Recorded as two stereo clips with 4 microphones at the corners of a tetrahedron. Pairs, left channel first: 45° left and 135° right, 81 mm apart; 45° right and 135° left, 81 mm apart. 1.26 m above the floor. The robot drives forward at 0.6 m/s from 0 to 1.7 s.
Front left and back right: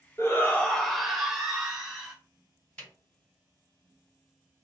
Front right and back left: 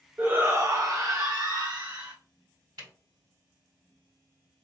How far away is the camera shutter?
About 2 m.